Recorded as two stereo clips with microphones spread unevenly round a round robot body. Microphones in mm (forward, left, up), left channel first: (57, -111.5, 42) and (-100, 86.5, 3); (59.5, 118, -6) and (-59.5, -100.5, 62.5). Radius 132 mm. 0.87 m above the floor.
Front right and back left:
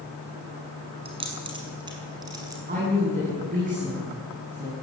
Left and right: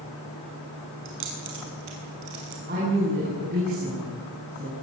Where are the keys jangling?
160° right, 6 m; by 2.6 s 155° right, 6 m.